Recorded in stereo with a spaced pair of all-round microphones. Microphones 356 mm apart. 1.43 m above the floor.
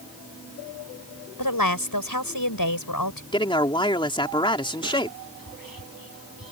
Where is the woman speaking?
70° left (ahead or behind).